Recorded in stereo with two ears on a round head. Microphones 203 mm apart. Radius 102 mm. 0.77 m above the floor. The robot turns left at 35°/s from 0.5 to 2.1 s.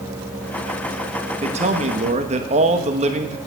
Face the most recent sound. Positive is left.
turn(degrees=-30)  # may be behind; listen again after turning